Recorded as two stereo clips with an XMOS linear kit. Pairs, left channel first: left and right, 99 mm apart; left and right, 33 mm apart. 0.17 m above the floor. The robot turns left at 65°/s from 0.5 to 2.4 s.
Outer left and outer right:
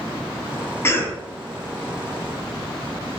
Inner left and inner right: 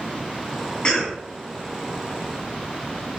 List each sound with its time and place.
0.8 s a cough: 25° left (ahead or behind), 1.1 m; by 1.2 s 20° left (ahead or behind), 1.1 m